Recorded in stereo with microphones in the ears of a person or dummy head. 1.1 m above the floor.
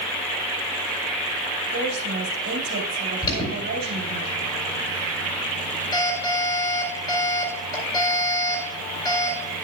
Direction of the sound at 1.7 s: 60° right (ahead or behind).